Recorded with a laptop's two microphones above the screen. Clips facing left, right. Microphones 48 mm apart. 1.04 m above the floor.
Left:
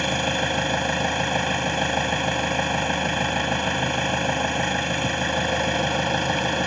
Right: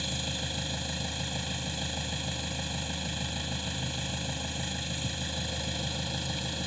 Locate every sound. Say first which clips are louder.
0.0 s an engine running: left 13 dB; 55° left (ahead or behind)